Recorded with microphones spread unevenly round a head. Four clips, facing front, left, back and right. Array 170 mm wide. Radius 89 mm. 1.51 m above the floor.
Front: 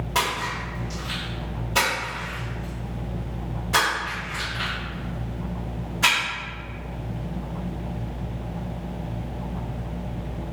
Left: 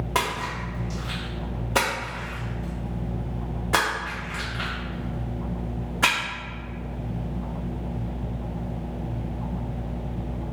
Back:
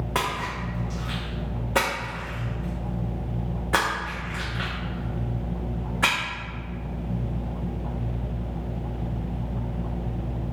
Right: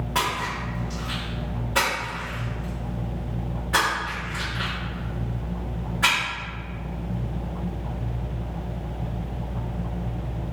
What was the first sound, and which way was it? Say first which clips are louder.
A splash: right 1 dB, front 2 dB; 130° left.